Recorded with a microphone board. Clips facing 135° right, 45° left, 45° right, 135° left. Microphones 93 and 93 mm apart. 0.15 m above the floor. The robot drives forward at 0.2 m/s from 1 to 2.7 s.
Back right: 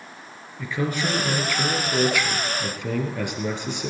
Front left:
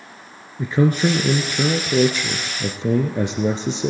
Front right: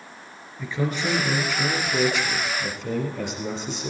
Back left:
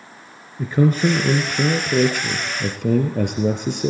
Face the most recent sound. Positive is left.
turn(degrees=110)